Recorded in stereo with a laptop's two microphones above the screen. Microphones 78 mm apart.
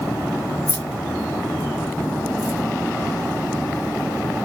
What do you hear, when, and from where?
0.7 s keys jangling: 55° right (ahead or behind), 1.4 m